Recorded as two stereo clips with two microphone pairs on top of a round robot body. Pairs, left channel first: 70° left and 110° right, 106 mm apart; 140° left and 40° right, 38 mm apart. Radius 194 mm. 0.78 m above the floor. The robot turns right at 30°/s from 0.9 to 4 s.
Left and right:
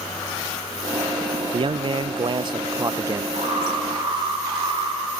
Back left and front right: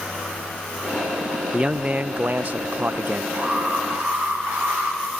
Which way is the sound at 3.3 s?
80° right.